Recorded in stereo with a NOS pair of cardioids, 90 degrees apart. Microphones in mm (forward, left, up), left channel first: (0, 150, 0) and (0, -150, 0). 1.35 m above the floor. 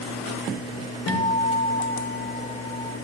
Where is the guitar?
55° left, 2.5 m.